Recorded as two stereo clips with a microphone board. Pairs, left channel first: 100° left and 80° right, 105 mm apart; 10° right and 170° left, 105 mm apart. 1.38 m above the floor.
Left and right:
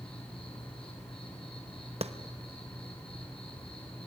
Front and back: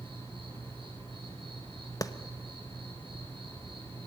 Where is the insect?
130° left, 7 m.